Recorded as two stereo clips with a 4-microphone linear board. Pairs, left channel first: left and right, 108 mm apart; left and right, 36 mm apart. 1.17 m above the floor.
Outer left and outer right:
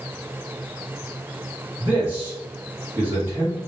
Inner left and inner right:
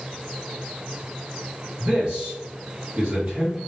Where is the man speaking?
20° right (ahead or behind), 2.0 m.